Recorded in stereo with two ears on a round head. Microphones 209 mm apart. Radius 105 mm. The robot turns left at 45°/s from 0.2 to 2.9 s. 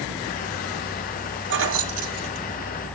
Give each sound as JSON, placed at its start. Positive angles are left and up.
{"t": 1.5, "sound": "keys jangling", "side_deg": -45, "distance_m": 1.5}